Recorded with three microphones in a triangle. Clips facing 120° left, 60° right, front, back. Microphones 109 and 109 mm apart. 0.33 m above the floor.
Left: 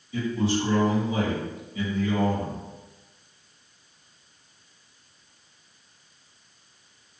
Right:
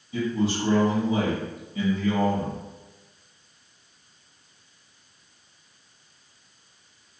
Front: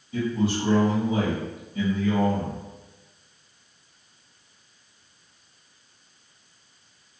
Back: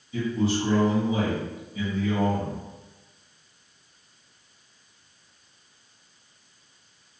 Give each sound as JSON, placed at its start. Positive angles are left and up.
{"t": 0.1, "sound": "a man speaking", "azimuth_deg": -20, "distance_m": 1.4}